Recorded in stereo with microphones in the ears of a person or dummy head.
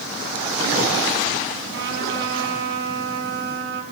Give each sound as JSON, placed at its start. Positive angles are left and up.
{"t": 1.7, "sound": "a trumpet", "side_deg": -60, "distance_m": 4.5}